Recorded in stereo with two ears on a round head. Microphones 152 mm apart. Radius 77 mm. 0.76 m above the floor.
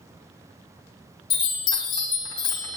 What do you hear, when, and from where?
1.3 s a chime: 25° left (ahead or behind), 2.5 m